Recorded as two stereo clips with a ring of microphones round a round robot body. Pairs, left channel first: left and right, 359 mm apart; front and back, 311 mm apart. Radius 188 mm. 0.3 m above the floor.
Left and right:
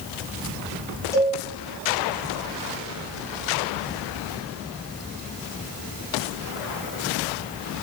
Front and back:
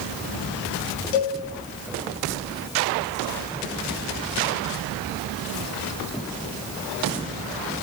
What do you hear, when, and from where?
1.1 s a cowbell: 10° left, 1.1 m